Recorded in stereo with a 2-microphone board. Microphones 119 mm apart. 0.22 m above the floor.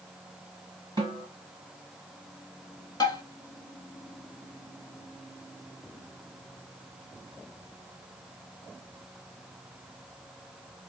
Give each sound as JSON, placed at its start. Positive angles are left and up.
{"t": 1.0, "sound": "a snare drum", "side_deg": -40, "distance_m": 1.4}
{"t": 3.0, "sound": "tapping", "side_deg": 35, "distance_m": 0.8}